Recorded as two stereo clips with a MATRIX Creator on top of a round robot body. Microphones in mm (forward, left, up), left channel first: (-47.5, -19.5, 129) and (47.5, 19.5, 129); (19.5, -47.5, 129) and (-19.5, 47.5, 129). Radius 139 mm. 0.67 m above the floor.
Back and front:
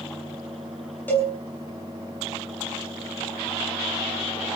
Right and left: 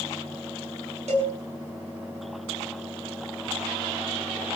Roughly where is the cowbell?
Behind left.